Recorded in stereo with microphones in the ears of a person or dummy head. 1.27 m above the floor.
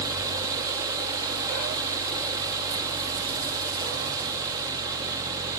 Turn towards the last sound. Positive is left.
No sound to turn to.